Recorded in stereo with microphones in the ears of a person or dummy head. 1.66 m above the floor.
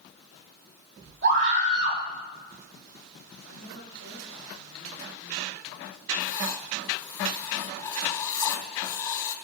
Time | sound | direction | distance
1.2 | a scream | 65° right (ahead or behind) | 7 m
3.5 | a woman speaking | 85° right | 8.5 m
6.2 | writing | 20° left (ahead or behind) | 3 m